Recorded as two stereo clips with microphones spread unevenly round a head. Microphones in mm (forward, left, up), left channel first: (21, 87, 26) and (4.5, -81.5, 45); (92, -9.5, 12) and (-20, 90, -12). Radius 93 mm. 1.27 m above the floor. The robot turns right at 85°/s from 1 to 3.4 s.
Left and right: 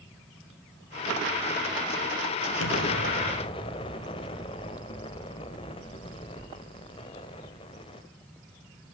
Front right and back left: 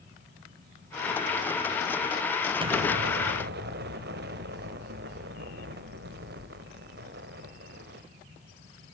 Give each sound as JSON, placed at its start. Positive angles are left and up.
{"t": 2.6, "sound": "an explosion", "azimuth_deg": 80, "distance_m": 1.7}